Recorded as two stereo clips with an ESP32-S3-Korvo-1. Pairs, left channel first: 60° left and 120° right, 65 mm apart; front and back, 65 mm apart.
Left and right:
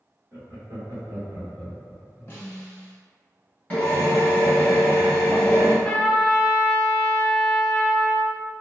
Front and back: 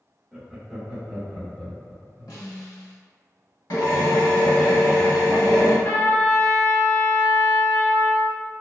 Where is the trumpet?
5° left, 0.6 m.